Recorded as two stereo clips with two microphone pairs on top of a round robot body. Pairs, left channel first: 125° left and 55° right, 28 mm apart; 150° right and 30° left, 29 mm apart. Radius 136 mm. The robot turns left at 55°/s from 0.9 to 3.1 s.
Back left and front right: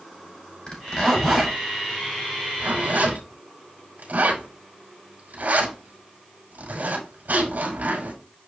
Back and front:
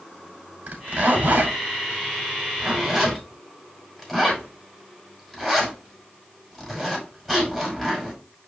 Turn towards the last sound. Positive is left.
turn(degrees=-70)